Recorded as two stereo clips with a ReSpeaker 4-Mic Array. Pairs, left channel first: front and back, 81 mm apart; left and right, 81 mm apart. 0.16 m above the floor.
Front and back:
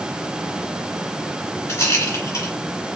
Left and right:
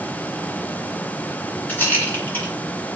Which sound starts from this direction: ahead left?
A rattle, at 1.7 s.